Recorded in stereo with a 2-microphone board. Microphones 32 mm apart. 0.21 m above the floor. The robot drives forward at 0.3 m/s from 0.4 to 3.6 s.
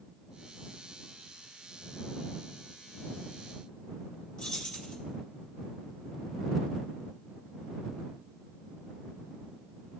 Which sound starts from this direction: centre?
Keys jangling, at 4.4 s.